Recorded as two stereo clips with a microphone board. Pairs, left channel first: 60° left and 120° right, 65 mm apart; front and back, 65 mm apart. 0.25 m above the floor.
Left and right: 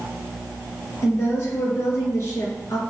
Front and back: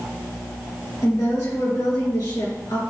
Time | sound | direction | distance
1.0 | a woman speaking | 15° left | 3 m